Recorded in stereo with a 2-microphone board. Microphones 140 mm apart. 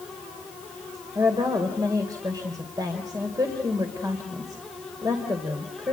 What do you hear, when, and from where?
1.1 s a woman speaking: 25° right (ahead or behind), 2.5 m